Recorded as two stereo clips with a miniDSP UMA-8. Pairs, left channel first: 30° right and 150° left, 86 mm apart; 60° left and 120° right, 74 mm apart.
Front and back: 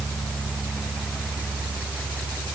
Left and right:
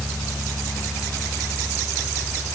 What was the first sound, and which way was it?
Only background noise.